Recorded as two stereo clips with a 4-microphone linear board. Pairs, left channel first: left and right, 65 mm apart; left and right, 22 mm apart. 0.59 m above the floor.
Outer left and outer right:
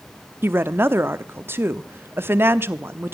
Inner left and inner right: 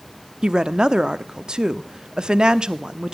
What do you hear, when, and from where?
0.4 s a woman speaking: 35° right (ahead or behind), 0.7 m